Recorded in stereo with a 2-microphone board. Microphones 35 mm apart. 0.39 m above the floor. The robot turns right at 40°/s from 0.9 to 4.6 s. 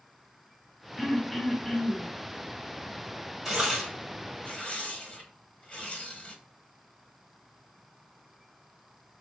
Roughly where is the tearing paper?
Centre.